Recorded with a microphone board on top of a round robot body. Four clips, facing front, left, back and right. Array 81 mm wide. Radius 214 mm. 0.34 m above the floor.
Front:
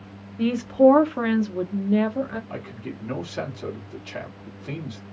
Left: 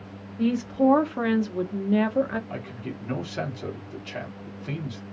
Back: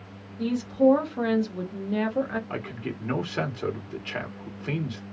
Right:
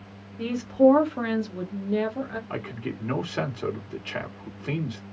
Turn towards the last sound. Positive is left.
turn(degrees=-130)